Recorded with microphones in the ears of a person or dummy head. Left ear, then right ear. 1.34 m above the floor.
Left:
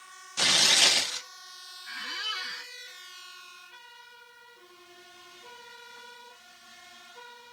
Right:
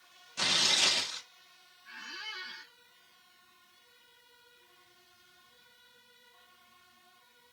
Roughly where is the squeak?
Left.